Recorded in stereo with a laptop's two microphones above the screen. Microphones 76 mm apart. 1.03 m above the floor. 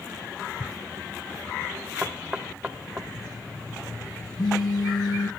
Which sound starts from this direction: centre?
Knocking, at 2.0 s.